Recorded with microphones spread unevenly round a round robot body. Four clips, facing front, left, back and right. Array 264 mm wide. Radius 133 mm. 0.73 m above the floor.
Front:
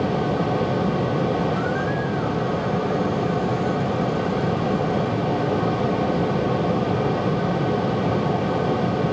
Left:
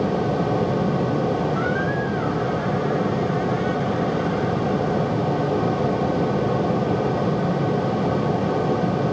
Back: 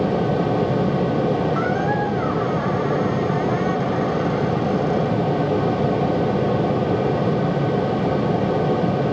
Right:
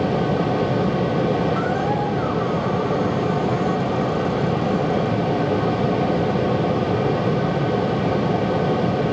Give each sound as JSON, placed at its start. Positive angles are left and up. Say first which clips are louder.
{"t": 1.6, "sound": "a squeak", "louder": "right 2 dB, back 3 dB", "azimuth_deg": -140}